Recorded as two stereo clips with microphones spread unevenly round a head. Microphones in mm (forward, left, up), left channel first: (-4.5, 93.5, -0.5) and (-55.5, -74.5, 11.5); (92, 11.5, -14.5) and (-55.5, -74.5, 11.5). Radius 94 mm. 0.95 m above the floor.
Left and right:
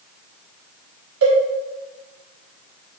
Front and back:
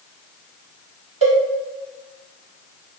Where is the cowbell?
100° right, 1.0 m.